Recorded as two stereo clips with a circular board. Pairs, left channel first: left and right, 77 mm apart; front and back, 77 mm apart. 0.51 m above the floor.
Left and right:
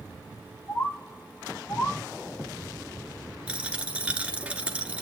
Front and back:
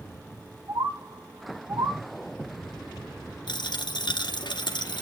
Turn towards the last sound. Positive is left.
turn(degrees=-15)